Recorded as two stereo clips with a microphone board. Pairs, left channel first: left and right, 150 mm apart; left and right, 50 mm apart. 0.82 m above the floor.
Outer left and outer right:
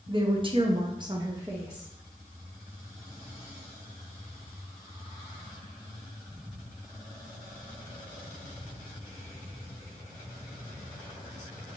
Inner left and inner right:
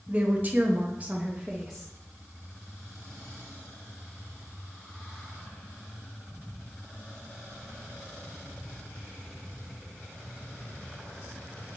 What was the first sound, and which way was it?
A woman speaking, 30° right (ahead or behind).